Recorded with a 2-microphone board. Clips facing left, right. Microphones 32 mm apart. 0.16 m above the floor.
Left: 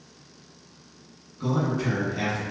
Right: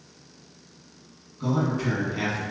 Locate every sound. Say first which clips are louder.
1.4 s a man speaking: even; 5° left (ahead or behind), 1.1 m; by 2.4 s 25° right (ahead or behind), 1.2 m